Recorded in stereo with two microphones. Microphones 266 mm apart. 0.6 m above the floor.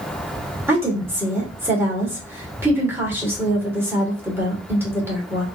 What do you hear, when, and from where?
0.7 s a woman speaking: 10° right (ahead or behind), 2 m